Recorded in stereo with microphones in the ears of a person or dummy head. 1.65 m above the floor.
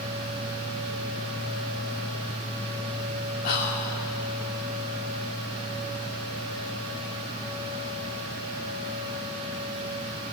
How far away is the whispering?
About 4 m.